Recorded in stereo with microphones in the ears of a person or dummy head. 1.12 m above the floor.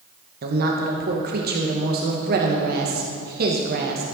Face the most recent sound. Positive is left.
turn(degrees=-45)  # may be behind; listen again after turning